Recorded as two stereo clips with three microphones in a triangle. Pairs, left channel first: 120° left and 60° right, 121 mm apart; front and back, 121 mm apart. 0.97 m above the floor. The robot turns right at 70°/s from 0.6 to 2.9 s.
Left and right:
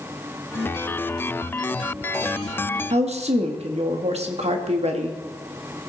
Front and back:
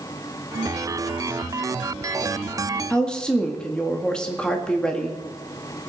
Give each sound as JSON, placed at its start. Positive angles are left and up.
{"t": 2.9, "sound": "a woman speaking", "azimuth_deg": -80, "distance_m": 1.7}